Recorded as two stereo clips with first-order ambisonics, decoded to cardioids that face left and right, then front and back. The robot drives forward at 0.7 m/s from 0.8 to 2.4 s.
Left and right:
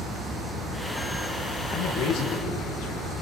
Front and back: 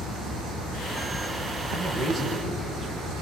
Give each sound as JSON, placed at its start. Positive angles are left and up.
{"t": 1.7, "sound": "a man speaking", "azimuth_deg": 70, "distance_m": 7.5}